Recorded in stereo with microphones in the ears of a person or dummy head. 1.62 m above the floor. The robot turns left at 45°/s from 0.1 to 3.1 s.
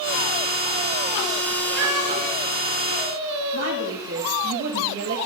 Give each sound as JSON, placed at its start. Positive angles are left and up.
{"t": 1.8, "sound": "a cat meowing", "side_deg": -60, "distance_m": 3.0}
{"t": 3.5, "sound": "a woman speaking", "side_deg": -70, "distance_m": 1.9}